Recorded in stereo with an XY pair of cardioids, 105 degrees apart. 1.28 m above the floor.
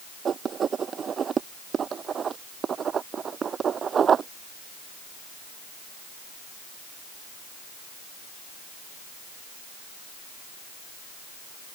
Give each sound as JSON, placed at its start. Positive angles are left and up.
{"t": 0.2, "sound": "writing", "azimuth_deg": -45}